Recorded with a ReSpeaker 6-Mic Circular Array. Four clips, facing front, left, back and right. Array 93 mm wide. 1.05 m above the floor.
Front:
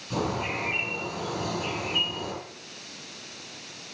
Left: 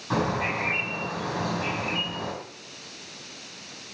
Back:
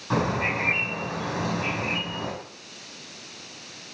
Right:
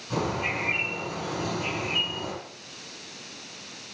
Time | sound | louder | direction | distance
0.1 | a bird | left 3 dB, back 4 dB | 155° left | 6.5 m